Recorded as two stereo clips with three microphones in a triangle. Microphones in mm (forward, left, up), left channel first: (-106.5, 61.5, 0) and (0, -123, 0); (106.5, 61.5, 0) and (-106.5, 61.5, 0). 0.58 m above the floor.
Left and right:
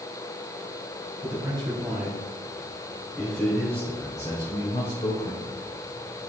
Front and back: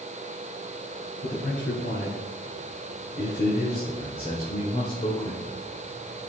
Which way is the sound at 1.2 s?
5° left.